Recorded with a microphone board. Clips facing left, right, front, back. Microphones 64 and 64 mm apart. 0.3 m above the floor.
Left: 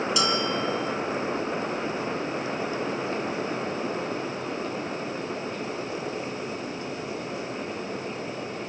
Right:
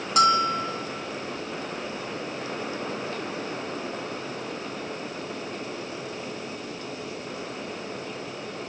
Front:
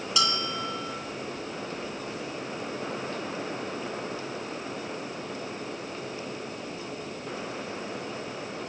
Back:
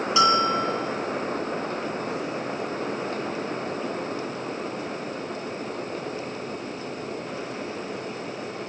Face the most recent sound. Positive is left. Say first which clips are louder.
# right 10 dB, back 10 dB
turn(degrees=-120)